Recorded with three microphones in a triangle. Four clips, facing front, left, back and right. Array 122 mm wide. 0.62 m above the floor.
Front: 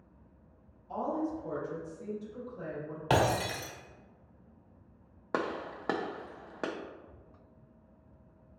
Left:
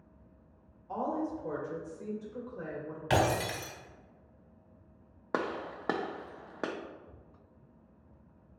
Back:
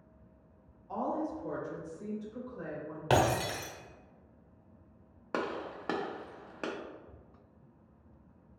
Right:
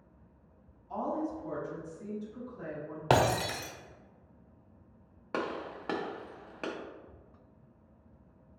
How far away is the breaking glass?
About 0.8 m.